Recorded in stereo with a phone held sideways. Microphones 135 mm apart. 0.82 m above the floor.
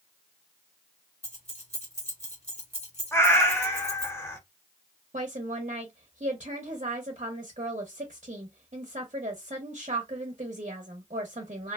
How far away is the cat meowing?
About 0.6 m.